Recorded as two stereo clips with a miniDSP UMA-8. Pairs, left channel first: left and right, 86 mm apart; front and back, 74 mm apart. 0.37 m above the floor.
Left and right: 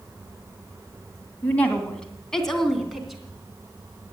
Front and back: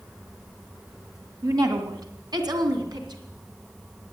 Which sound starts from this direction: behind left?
A woman speaking, at 1.4 s.